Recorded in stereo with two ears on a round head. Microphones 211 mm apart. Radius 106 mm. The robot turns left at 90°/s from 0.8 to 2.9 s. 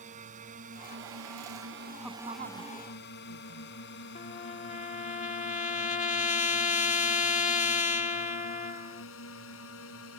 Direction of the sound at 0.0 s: 30° right (ahead or behind).